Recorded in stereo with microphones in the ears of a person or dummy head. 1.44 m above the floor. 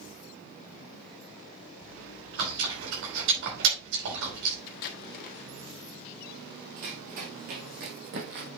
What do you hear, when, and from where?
1.8 s chewing: 75° right (ahead or behind), 4.5 m
4.7 s tape being pulled: 50° left (ahead or behind), 1.5 m
6.8 s running footsteps: 40° right (ahead or behind), 3 m; by 8.5 s 60° right (ahead or behind), 3.5 m